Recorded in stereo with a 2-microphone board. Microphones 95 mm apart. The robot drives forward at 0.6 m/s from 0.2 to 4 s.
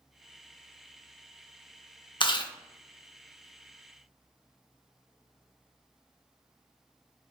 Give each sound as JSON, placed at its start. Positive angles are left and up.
{"t": 2.2, "sound": "chewing", "side_deg": 55, "distance_m": 0.6}